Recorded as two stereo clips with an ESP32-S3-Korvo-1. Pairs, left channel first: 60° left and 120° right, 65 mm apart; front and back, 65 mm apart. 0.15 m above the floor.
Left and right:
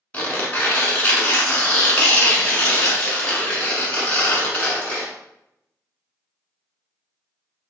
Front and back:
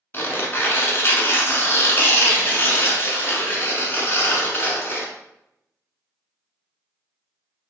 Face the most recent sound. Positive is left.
turn(degrees=15)